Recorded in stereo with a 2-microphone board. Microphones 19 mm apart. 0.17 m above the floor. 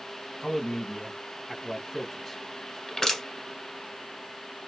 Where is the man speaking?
20° left (ahead or behind), 1.0 m.